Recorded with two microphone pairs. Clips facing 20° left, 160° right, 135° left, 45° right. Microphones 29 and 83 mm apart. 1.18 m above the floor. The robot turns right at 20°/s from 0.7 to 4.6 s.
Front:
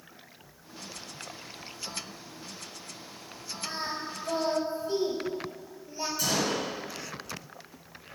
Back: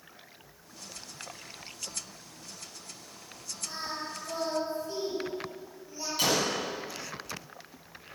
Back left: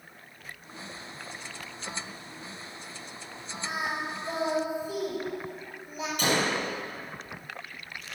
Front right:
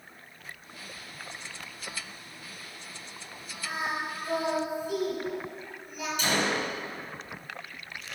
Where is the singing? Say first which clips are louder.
Front 2 dB, even; 60° left, 5.5 m; by 6.1 s 80° left, 5.5 m.